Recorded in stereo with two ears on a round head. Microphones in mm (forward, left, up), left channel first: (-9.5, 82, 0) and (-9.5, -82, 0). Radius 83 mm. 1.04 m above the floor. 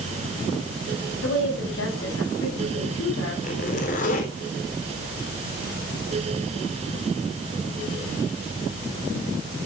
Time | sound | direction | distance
1.2 | a woman speaking | 75° left (ahead or behind) | 8.5 m
3.4 | a zipper | 45° left (ahead or behind) | 3.5 m